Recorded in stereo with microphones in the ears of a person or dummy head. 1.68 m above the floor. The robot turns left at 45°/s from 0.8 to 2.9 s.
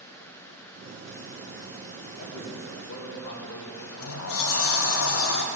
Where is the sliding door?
75° left (ahead or behind), 1.2 m.